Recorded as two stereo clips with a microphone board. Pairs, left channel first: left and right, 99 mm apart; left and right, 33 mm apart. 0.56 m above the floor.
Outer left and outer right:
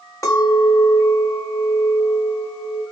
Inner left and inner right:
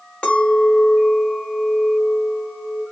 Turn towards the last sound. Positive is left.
turn(degrees=35)  # may be behind; listen again after turning